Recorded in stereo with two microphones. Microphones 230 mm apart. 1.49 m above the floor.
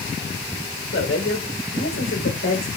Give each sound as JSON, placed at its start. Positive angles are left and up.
{"t": 0.9, "sound": "a woman speaking", "side_deg": 70, "distance_m": 6.0}